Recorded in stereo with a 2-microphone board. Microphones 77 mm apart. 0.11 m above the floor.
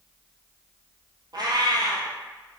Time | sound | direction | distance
1.3 | a cat meowing | 65° right (ahead or behind) | 1.1 m